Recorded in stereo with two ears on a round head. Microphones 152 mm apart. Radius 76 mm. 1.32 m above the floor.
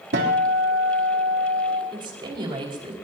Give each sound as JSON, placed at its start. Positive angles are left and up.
{"t": 0.1, "sound": "a guitar", "side_deg": -70, "distance_m": 3.5}
{"t": 1.9, "sound": "a woman speaking", "side_deg": -30, "distance_m": 5.5}